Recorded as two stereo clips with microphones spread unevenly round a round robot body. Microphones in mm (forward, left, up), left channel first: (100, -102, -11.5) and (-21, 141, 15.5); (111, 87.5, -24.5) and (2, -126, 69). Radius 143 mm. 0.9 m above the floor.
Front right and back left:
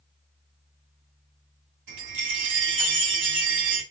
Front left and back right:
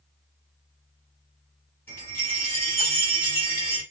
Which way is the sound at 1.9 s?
145° left.